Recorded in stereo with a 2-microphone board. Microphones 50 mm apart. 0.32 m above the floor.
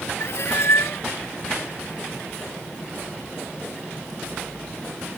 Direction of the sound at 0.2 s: 60° left (ahead or behind).